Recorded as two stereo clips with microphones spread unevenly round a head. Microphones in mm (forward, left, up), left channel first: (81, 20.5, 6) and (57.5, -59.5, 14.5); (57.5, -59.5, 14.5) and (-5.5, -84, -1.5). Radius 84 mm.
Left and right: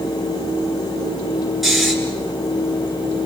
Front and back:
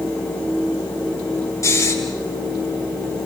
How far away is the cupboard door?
I don't hear a cupboard door.